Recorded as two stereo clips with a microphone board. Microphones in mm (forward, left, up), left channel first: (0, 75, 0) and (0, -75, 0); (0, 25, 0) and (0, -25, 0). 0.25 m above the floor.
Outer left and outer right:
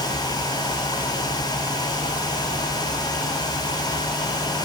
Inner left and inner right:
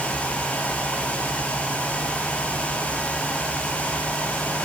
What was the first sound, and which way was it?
Only background noise.